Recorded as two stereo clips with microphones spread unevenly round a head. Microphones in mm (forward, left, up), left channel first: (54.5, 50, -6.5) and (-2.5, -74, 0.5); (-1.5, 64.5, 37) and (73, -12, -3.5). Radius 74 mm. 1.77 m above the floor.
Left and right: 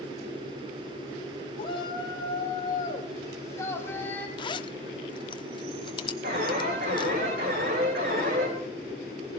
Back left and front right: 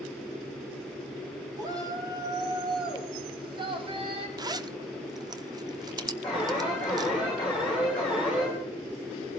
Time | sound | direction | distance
1.6 | a shout | 10° left | 4.5 m
4.4 | a zipper | 10° left | 0.9 m
6.2 | an alarm | 145° right | 9 m